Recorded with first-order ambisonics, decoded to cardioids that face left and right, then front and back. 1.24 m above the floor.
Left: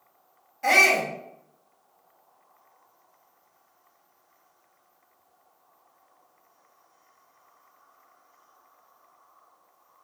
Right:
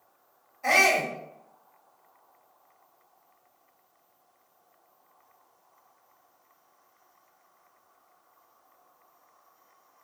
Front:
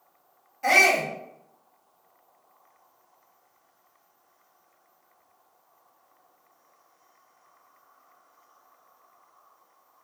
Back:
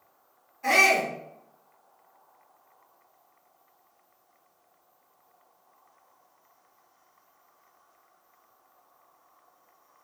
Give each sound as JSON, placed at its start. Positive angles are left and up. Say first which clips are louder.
{"t": 0.6, "sound": "a shout", "louder": "left 3 dB, front 2 dB", "azimuth_deg": 55, "distance_m": 1.6}